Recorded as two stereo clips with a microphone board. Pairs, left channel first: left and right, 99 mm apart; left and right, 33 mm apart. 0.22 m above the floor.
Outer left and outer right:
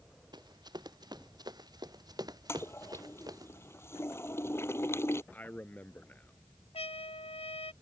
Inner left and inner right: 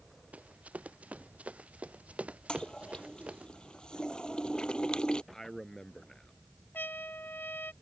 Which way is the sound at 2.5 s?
25° left (ahead or behind).